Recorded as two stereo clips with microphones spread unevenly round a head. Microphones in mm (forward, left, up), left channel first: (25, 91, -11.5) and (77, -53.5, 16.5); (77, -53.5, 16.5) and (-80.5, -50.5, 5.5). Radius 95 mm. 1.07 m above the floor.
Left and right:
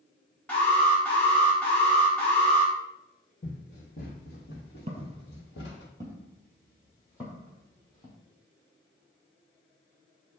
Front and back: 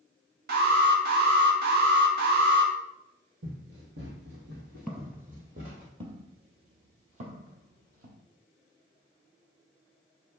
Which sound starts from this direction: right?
Footsteps, at 4.9 s.